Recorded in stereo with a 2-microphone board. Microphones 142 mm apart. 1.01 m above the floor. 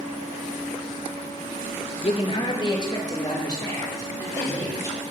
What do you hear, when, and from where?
2.0 s a man speaking: 45° left (ahead or behind), 0.8 m; by 5.0 s 20° left (ahead or behind), 4 m